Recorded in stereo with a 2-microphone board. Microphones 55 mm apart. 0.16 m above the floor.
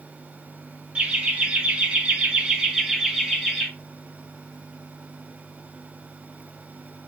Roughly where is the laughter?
Right.